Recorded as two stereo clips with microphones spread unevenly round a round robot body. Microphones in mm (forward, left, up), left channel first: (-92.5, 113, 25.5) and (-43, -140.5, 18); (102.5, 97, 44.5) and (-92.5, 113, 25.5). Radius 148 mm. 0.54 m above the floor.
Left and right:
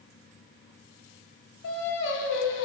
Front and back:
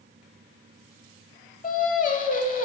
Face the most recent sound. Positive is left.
turn(degrees=45)